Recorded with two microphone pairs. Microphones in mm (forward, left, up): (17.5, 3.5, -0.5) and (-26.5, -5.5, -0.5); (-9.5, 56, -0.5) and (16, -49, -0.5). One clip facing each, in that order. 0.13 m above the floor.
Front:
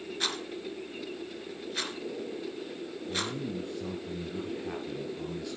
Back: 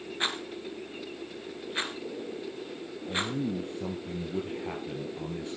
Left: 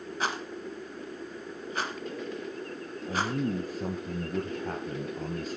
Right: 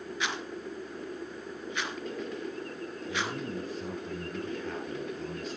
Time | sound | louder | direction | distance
0.2 | a rattle | back 2 dB, left 3 dB | 135° left | 1.6 m
3.1 | a man speaking | back 4 dB, left 6 dB | 145° left | 2.0 m